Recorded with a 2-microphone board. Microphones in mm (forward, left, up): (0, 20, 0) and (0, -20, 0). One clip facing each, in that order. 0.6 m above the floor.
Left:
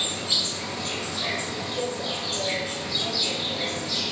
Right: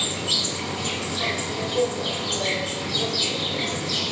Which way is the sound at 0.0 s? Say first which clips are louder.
Right 2 dB; 65° right (ahead or behind).